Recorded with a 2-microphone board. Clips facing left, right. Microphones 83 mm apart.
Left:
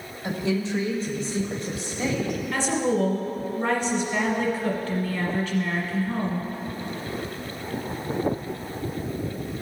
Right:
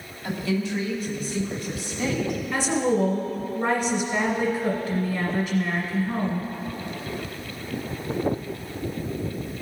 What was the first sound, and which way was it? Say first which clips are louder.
A woman speaking: even; 25° left (ahead or behind).